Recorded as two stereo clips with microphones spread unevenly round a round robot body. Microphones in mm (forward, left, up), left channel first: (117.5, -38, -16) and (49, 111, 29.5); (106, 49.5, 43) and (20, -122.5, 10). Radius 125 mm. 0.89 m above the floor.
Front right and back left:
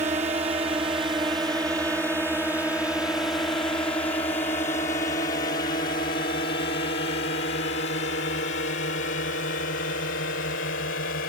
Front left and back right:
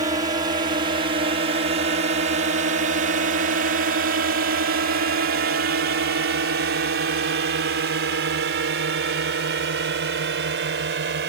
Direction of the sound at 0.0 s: Straight behind.